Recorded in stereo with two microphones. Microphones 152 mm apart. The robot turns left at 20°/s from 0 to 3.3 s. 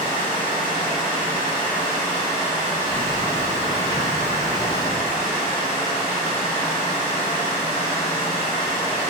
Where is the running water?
40° left, 1.8 m; by 9.1 s 25° right, 1.8 m.